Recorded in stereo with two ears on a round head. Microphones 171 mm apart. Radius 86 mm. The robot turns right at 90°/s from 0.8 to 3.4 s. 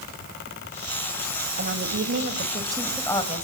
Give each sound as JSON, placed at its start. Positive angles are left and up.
{"t": 1.6, "sound": "a woman speaking", "azimuth_deg": -120, "distance_m": 2.5}